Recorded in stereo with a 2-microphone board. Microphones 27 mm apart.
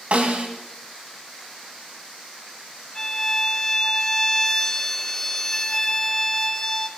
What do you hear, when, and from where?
0.1 s a snare drum: 55° right (ahead or behind), 2.5 m
3.0 s a violin: 20° left (ahead or behind), 0.6 m